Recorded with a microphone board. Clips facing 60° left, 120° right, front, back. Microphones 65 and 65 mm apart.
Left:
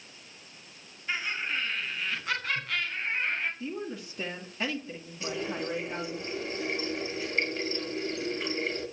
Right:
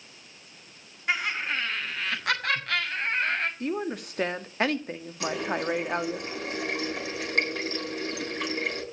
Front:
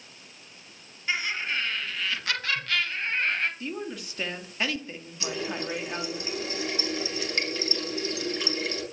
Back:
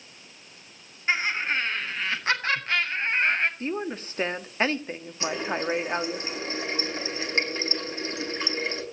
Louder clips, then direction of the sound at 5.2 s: Right 5 dB, back 4 dB; 125° right.